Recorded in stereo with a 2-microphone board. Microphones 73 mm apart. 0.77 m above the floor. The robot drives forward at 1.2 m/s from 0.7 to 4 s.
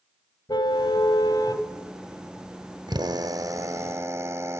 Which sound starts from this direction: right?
A drill, at 2.9 s.